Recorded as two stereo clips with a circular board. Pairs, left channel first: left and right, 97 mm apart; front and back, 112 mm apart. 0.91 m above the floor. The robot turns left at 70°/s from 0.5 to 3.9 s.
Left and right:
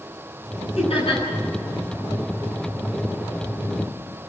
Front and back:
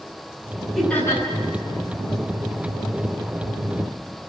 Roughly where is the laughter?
Left.